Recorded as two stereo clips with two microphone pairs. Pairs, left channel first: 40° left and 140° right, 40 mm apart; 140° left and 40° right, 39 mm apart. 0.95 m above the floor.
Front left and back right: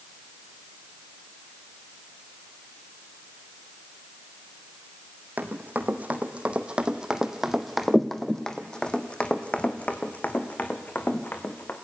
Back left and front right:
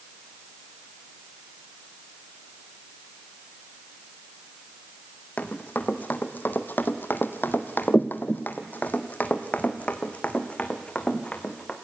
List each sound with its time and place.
5.4 s running footsteps: 175° right, 2 m; by 11.7 s 80° left, 3.5 m